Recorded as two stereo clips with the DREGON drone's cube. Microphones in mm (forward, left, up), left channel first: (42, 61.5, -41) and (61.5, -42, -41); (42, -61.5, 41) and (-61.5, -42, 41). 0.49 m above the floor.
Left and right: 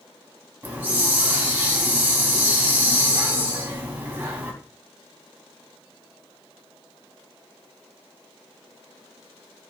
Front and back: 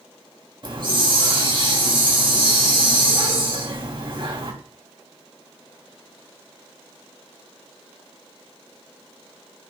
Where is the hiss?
155° right, 4 m.